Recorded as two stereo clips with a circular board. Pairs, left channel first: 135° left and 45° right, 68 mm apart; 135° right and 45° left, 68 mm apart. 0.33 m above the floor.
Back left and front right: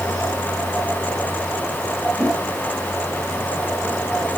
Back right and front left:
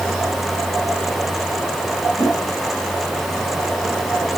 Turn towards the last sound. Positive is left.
turn(degrees=70)